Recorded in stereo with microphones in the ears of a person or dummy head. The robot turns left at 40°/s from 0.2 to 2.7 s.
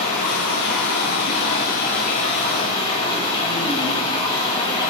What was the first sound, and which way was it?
Running water, 125° left.